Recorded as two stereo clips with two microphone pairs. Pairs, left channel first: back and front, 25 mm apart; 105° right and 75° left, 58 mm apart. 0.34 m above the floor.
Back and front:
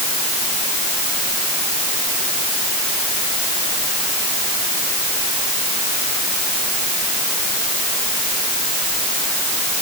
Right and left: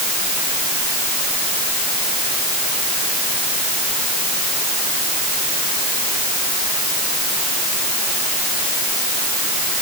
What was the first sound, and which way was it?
Only background noise.